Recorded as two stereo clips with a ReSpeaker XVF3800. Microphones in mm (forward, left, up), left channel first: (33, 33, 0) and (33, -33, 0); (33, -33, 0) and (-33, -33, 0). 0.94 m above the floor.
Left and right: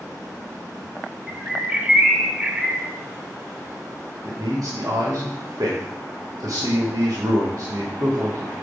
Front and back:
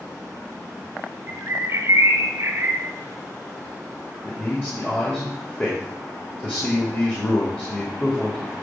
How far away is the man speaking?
About 2 m.